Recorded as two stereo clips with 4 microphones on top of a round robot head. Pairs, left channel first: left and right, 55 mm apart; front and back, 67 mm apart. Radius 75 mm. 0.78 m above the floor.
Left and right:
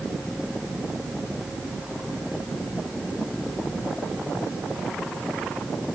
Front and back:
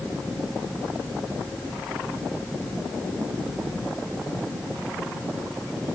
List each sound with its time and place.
Only background noise.